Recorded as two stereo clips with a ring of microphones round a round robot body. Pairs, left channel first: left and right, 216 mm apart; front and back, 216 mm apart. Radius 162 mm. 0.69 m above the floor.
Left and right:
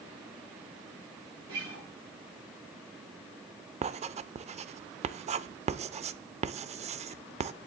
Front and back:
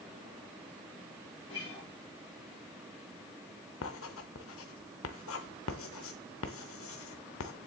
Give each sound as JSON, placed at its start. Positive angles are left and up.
{"t": 1.5, "sound": "a guitar", "azimuth_deg": -75, "distance_m": 7.5}
{"t": 3.8, "sound": "writing", "azimuth_deg": -35, "distance_m": 0.5}